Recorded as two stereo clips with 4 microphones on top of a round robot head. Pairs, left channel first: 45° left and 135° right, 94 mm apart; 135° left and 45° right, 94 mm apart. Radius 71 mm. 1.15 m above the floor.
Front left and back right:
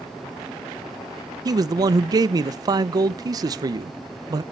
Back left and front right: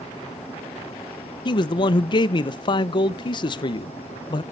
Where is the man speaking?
175° left, 0.5 m.